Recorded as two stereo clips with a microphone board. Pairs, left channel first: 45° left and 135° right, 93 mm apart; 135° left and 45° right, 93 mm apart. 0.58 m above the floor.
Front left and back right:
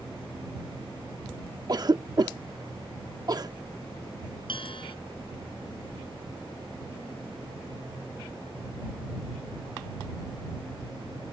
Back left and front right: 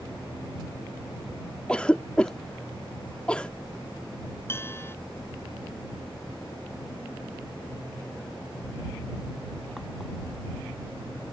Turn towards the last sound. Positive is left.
turn(degrees=70)